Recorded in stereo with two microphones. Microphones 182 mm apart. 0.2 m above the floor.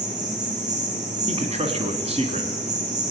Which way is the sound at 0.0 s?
35° right (ahead or behind).